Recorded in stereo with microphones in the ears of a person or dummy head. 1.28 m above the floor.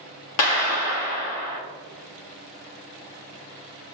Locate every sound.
0.4 s a clap: 80° left, 1.5 m